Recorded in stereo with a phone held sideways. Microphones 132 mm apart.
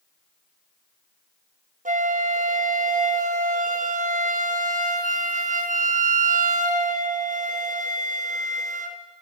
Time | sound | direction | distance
1.9 | a flute | 75° right (ahead or behind) | 0.6 m